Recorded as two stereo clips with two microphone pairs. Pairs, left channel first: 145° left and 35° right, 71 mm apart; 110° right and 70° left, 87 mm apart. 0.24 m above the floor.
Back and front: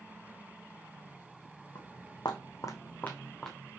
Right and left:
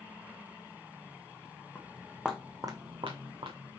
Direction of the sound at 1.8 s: Straight behind.